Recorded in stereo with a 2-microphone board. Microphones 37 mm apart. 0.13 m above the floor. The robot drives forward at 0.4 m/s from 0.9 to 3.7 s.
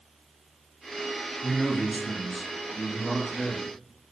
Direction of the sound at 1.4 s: 5° left (ahead or behind).